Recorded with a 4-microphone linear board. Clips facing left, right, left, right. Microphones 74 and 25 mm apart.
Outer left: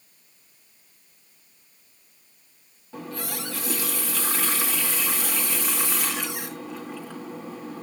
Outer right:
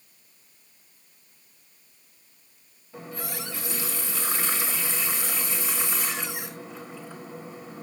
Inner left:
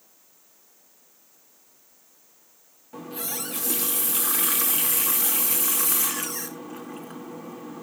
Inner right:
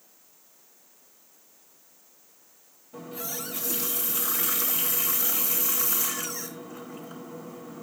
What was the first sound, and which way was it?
A running tap, 75° left (ahead or behind).